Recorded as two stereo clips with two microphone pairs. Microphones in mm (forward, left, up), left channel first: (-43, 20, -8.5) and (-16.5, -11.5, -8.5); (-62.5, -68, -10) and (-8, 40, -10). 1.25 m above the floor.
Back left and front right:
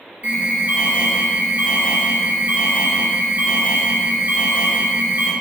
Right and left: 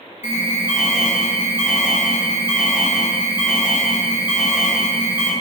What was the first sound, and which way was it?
An alarm, 5° right.